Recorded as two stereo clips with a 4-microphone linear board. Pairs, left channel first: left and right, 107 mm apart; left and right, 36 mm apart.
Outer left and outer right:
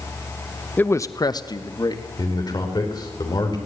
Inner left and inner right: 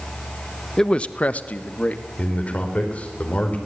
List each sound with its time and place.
0.8 s a man speaking: 15° left (ahead or behind), 0.7 m; by 2.0 s 40° left (ahead or behind), 2.0 m
2.2 s a man speaking: 40° left (ahead or behind), 4 m